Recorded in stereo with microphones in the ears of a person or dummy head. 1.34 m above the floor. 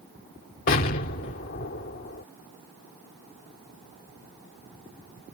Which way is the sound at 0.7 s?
45° left (ahead or behind).